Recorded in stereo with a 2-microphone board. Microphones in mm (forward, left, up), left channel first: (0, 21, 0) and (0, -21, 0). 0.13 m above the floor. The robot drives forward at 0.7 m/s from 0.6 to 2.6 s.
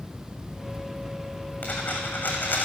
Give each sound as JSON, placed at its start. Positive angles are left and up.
{"t": 1.6, "sound": "a dropped coin", "side_deg": 40, "distance_m": 1.9}